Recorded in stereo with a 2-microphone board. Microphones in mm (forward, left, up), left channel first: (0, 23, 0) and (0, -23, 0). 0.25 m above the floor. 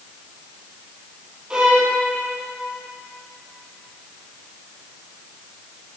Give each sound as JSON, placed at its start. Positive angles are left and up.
{"t": 1.5, "sound": "a violin", "side_deg": -20, "distance_m": 1.9}